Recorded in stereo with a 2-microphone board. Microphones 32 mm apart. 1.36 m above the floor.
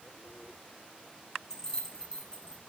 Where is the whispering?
I don't hear whispering.